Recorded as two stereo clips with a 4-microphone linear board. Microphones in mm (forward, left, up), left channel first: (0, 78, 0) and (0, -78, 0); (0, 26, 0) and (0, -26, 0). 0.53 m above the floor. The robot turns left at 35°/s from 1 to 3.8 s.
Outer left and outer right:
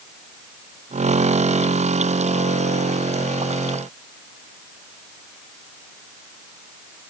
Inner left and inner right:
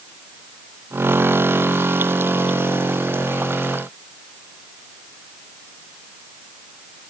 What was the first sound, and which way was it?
Only background noise.